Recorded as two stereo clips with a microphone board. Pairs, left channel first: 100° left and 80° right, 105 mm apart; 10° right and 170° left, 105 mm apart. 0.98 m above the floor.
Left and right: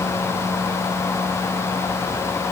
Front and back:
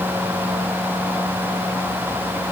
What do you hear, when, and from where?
Only background noise.